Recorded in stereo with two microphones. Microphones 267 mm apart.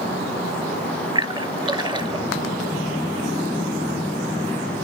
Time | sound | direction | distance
1.1 | a splash | 15° right (ahead or behind) | 0.6 m